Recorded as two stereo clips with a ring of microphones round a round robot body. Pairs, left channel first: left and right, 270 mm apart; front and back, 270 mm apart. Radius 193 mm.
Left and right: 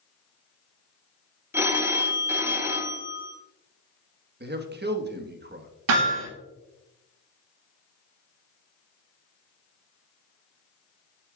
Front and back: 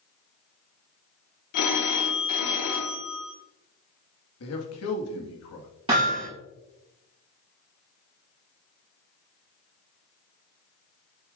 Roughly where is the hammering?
Right.